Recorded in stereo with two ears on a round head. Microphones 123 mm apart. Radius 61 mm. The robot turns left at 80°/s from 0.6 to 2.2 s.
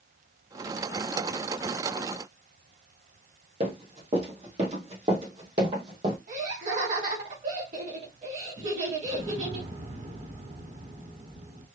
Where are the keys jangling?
No keys jangling in this recording.